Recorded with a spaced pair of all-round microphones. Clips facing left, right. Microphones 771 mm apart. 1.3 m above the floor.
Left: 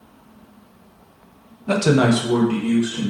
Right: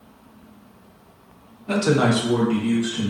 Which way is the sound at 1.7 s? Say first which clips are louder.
Left 3 dB; 75° left (ahead or behind).